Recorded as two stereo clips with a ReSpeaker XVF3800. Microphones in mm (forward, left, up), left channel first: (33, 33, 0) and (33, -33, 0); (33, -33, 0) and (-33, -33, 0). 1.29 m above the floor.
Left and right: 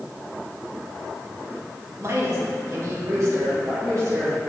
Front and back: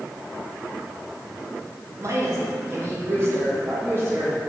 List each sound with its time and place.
2.0 s a woman speaking: 135° right, 1.6 m; by 4.4 s 125° right, 3 m